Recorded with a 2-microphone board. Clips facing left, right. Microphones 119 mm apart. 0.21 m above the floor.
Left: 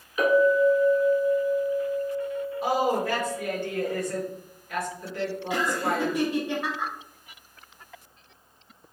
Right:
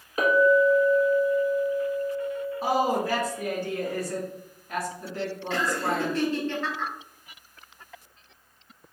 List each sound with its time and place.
0.2 s a clink: 40° right (ahead or behind), 1.2 m
2.6 s a woman speaking: 35° right (ahead or behind), 1.7 m
5.5 s laughter: 15° left (ahead or behind), 1.1 m